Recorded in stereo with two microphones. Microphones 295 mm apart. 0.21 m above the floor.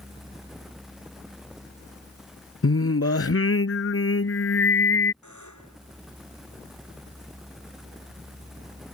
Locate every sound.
2.6 s singing: 50° left (ahead or behind)
5.2 s a buzzer: 80° left